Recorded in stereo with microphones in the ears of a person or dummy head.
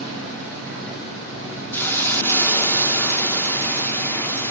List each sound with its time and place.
1.7 s a hiss: 10° left (ahead or behind), 0.6 m